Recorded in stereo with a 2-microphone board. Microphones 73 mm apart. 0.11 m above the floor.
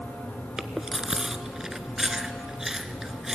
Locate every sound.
0.6 s chewing: 10° right (ahead or behind), 0.9 m